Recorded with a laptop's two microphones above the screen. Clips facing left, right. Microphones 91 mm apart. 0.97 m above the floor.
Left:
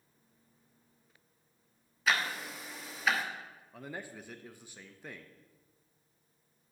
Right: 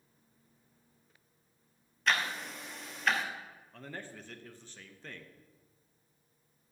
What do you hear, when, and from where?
2.1 s ticking: 5° left (ahead or behind), 1.0 m
3.7 s a man speaking: 10° left (ahead or behind), 0.5 m